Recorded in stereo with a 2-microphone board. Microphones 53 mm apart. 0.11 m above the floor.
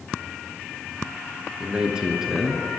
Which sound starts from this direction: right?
A man speaking, at 1.6 s.